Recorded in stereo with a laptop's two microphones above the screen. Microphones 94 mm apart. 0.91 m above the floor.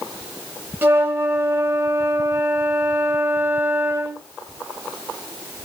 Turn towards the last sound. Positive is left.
turn(degrees=-25)  # may be behind; listen again after turning